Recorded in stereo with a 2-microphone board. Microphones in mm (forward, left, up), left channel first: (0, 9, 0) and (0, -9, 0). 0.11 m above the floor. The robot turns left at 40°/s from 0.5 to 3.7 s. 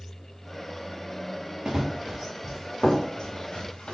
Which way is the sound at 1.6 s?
15° right (ahead or behind).